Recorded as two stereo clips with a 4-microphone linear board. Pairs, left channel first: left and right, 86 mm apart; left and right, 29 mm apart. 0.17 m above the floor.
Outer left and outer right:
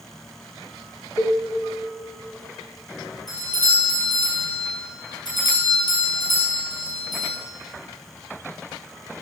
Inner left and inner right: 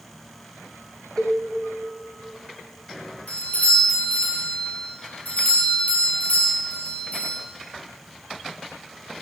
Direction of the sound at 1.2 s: 30° left (ahead or behind).